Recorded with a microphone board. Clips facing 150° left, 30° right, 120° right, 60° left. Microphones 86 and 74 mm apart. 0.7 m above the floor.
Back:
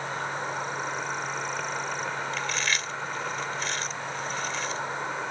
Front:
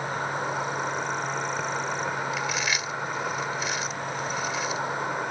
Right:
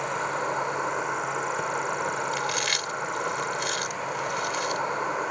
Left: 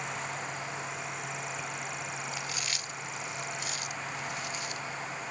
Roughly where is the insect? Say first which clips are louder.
Front 3 dB, right 9 dB; right.